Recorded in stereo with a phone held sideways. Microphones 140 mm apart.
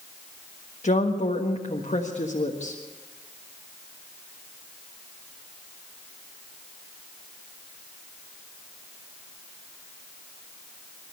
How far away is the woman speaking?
About 1.5 m.